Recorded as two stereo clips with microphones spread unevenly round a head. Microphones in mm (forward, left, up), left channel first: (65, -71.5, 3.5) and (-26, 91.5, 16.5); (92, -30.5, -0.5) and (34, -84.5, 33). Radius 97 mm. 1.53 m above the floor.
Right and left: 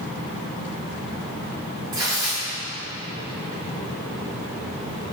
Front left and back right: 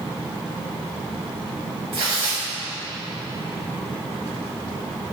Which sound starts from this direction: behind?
Tearing paper, at 1.9 s.